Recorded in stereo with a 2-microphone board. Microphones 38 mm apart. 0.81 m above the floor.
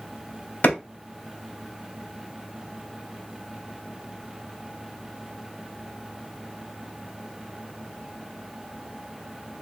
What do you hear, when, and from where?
0.6 s a clap: 50° left (ahead or behind), 2 m